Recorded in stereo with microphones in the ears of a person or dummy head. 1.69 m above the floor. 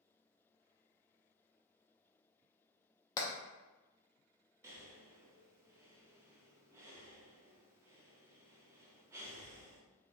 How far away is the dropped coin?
No dropped coin in this recording.